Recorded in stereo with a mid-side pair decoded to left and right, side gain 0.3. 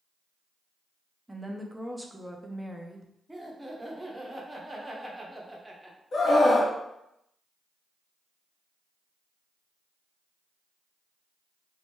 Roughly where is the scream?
Left.